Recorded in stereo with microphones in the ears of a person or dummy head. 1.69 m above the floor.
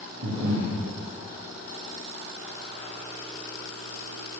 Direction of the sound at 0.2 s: 60° right (ahead or behind).